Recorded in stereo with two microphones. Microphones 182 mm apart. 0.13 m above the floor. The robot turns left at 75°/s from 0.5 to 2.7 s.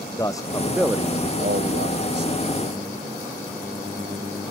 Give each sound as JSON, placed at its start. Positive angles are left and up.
{"t": 0.2, "sound": "a man speaking", "azimuth_deg": 20}